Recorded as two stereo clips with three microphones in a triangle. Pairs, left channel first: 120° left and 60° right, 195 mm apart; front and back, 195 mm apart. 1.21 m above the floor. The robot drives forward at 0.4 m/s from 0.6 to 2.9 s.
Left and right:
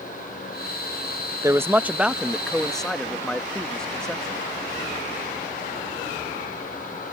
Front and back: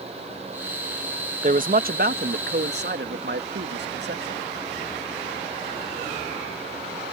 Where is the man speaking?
135° right; by 4.4 s 155° right.